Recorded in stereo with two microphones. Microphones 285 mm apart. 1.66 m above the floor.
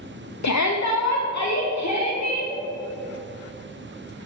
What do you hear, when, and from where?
0.4 s a shout: 75° left (ahead or behind), 0.6 m; by 2.5 s 65° left (ahead or behind), 1.7 m